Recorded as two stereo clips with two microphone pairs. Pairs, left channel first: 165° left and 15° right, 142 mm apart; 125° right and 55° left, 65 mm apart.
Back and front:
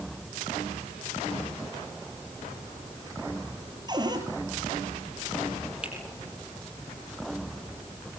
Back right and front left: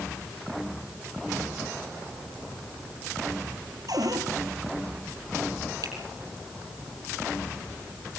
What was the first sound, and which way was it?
A cupboard door, 45° left.